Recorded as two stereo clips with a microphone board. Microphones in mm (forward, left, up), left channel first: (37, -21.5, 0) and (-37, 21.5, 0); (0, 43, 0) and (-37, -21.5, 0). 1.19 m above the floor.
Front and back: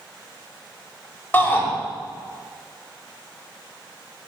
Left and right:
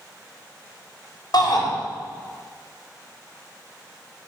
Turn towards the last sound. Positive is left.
turn(degrees=40)